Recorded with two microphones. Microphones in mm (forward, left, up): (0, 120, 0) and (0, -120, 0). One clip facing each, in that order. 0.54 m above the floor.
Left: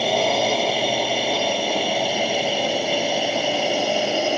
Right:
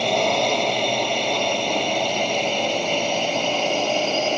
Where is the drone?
5° left (ahead or behind); by 4.4 s 10° left (ahead or behind).